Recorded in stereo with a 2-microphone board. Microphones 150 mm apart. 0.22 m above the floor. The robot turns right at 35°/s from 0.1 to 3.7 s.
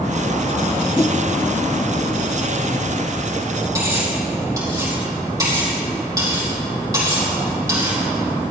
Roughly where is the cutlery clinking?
Right.